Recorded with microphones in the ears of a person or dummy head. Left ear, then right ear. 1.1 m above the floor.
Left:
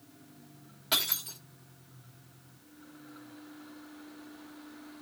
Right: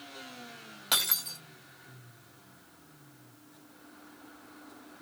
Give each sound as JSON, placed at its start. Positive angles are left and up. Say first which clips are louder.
{"t": 0.9, "sound": "breaking glass", "louder": "right 1 dB", "side_deg": -40, "distance_m": 1.5}